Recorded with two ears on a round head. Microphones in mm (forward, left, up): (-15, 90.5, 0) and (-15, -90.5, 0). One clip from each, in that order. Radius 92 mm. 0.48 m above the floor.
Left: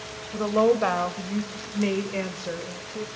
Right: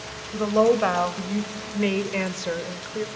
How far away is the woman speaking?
About 1.8 m.